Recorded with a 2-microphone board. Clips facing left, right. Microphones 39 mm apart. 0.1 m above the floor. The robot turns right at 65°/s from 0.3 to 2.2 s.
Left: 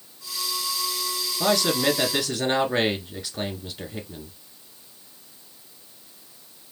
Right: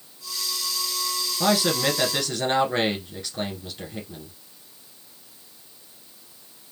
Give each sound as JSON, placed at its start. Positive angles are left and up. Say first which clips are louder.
{"t": 1.4, "sound": "a man speaking", "louder": "even", "side_deg": -15, "distance_m": 1.1}